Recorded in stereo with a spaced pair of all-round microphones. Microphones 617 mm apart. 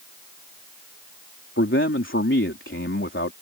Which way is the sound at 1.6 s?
20° left (ahead or behind).